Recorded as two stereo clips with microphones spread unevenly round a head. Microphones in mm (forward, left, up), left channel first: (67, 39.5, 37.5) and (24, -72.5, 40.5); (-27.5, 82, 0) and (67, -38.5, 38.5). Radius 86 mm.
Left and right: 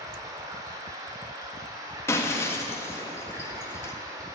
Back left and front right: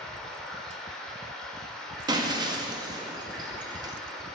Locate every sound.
0.0 s running water: 115° right, 1.3 m
2.1 s breaking glass: straight ahead, 1.5 m